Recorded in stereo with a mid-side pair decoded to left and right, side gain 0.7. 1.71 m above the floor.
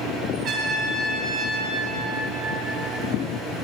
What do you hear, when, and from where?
0.4 s a trumpet: 20° right, 2.5 m